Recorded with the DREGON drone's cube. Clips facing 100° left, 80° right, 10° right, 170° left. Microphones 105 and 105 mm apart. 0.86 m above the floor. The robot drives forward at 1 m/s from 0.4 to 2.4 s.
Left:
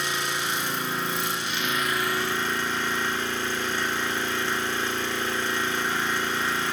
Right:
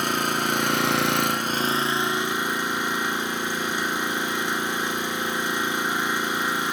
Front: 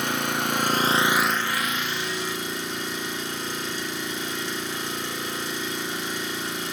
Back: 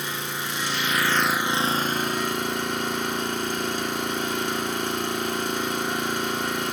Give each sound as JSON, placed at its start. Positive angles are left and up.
{"t": 0.0, "sound": "an engine running", "azimuth_deg": -40, "distance_m": 1.0}